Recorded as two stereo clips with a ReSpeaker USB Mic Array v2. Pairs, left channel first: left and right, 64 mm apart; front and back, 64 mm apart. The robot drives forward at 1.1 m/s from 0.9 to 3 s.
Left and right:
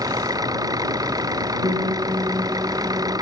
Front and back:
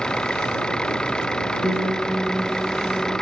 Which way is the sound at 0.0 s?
80° right.